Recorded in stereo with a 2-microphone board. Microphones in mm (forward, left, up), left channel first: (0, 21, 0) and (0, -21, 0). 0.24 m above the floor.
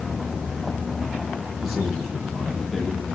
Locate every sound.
1.6 s a man speaking: 5° right (ahead or behind), 9 m; by 3.0 s 5° left (ahead or behind), 9.5 m